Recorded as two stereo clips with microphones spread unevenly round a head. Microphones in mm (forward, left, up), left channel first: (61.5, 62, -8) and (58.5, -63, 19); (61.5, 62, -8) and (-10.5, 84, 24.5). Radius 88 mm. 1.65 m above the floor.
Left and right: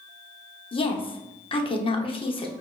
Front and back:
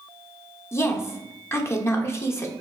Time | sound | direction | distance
0.7 | a woman speaking | 40° left | 1.0 m